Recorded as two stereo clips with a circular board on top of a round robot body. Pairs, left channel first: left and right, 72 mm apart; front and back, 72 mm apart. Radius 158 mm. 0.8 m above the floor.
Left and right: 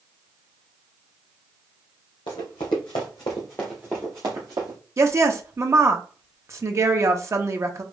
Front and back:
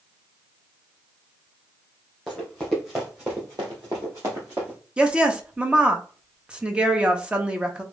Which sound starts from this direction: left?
Running footsteps, at 2.3 s.